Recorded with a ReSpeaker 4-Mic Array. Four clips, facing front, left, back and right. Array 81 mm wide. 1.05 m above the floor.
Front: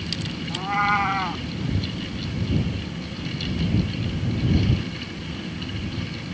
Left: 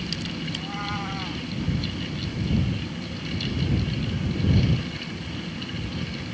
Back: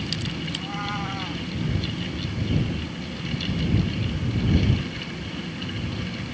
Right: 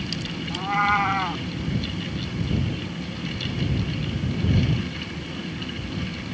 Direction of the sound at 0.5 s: 50° right.